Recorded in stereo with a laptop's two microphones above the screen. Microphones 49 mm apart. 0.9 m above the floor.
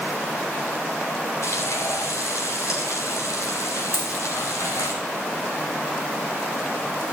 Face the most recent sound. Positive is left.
turn(degrees=70)  # may be behind; listen again after turning